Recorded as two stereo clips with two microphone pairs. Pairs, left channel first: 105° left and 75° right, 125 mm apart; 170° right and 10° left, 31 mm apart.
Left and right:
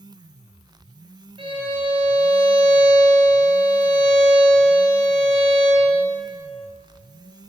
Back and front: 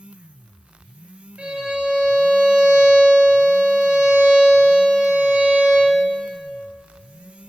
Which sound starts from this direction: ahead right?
A violin, at 1.4 s.